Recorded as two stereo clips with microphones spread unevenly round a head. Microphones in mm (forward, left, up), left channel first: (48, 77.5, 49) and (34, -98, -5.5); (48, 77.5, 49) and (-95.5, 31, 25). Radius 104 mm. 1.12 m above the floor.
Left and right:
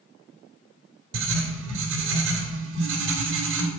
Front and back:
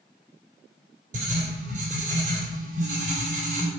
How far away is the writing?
About 2.5 m.